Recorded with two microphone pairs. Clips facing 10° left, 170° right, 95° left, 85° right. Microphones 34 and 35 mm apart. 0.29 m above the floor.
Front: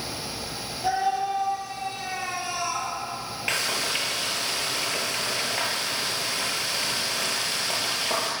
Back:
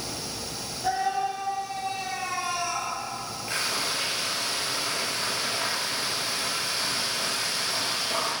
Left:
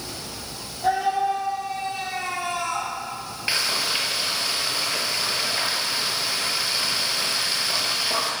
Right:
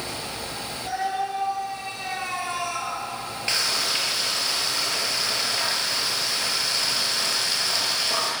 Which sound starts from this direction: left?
A scream, at 0.8 s.